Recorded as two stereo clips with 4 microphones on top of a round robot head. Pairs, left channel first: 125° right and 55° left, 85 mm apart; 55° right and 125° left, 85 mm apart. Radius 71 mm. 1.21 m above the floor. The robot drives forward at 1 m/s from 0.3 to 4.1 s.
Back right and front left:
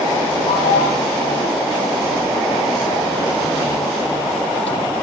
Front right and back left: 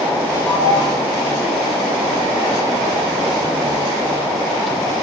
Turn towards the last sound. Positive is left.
turn(degrees=-140)